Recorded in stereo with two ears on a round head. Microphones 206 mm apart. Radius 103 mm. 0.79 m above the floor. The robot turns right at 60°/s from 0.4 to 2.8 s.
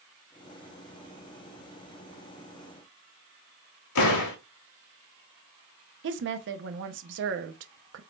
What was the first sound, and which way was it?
A door slam, 65° left (ahead or behind).